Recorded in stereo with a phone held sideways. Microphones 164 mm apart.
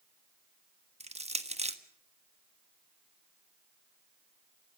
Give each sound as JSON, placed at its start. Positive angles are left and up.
{"t": 1.0, "sound": "crushing", "side_deg": -40, "distance_m": 1.4}